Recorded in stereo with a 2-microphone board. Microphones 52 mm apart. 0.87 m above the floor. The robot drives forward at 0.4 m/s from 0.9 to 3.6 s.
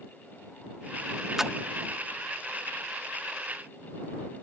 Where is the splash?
5° right (ahead or behind).